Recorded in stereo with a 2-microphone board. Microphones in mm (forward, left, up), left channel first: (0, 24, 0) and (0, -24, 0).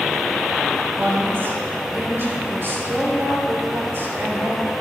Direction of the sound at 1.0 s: 60° right (ahead or behind).